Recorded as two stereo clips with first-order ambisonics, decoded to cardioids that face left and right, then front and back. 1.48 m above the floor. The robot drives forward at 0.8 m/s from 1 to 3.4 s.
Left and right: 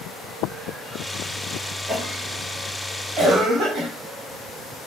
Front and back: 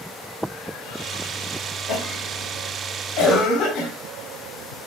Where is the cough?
30° right, 4 m; by 3.9 s 40° right, 3 m.